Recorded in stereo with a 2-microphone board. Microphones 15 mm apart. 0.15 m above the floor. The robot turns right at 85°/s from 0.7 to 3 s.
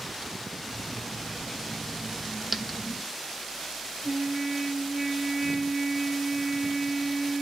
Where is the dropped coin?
10° right (ahead or behind), 0.6 m; by 2.8 s 15° left (ahead or behind), 0.6 m.